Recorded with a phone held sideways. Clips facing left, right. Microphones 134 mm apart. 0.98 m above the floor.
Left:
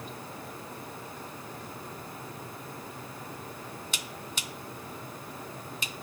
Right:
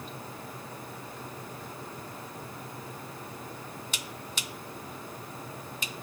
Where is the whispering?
I don't hear whispering.